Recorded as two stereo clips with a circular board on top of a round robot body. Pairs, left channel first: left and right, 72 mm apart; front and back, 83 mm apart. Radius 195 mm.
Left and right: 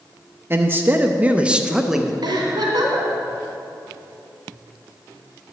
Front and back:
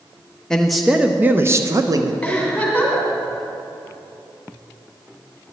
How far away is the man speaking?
About 0.8 m.